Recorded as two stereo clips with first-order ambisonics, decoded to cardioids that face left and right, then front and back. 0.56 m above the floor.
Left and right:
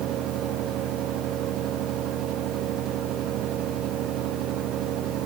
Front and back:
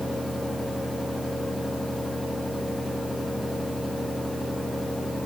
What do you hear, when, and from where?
Only background noise.